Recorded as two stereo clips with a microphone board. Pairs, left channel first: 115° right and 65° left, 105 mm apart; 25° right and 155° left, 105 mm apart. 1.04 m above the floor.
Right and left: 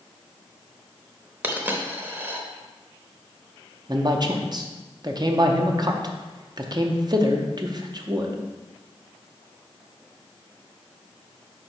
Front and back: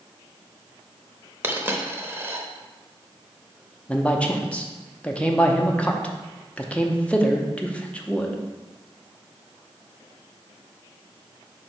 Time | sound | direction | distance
1.4 | a dropped coin | 115° left | 0.8 m
3.9 | a man speaking | 50° left | 0.7 m